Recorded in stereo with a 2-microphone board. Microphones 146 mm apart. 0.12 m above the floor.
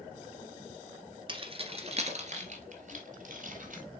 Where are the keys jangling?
35° right (ahead or behind), 1.1 m; by 3.8 s 65° right (ahead or behind), 2 m.